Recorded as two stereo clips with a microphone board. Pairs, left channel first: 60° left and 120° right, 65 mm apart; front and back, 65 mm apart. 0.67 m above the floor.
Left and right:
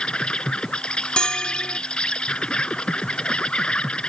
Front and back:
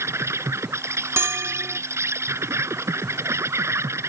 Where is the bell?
135° left.